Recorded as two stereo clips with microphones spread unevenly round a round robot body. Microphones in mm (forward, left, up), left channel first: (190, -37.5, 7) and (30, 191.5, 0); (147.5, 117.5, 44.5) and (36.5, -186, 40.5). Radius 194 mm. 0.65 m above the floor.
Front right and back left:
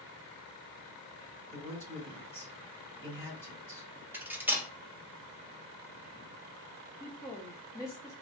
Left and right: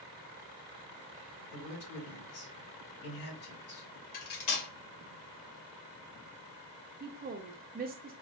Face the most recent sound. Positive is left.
turn(degrees=-130)